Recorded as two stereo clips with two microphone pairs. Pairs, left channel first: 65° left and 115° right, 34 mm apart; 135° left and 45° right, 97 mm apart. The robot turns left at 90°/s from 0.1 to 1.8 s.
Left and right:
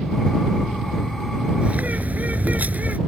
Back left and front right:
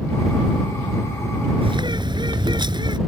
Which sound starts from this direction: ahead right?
A bird, at 1.6 s.